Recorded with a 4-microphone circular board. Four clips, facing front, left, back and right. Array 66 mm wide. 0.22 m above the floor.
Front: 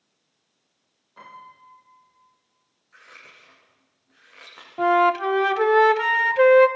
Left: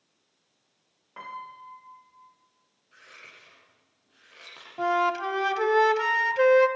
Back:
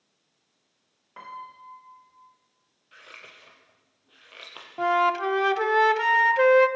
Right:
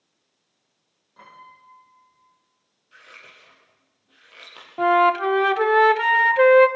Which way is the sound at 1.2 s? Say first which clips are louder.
Left 7 dB, back 4 dB; 130° left.